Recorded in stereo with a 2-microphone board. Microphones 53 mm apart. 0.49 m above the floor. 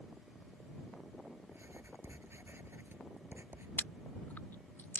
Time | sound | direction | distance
1.5 | writing | 50° right (ahead or behind) | ?
3.8 | chewing | 40° left (ahead or behind) | ?